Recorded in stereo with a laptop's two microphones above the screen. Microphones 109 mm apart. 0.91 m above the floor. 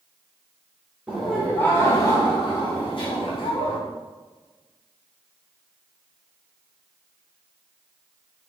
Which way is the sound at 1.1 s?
10° right (ahead or behind).